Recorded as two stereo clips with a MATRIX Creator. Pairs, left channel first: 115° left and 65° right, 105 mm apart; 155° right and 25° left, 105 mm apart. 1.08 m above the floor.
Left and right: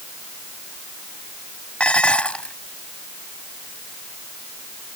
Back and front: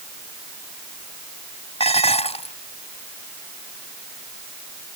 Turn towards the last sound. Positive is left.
turn(degrees=-170)